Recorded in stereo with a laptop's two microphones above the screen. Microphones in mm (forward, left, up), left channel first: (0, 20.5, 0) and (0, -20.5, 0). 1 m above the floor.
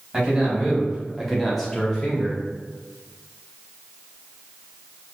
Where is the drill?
I don't hear a drill.